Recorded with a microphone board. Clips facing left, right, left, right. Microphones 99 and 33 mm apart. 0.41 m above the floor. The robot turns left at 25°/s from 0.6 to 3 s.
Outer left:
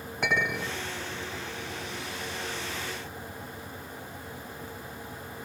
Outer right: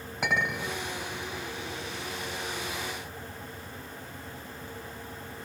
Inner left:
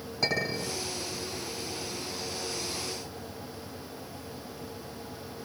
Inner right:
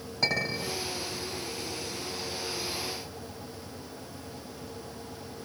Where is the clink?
5° right (ahead or behind), 1.8 m; by 0.8 s centre (ahead or behind), 1.8 m.